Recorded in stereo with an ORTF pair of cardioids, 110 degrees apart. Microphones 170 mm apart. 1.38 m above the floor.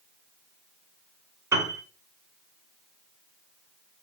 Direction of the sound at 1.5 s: 15° right.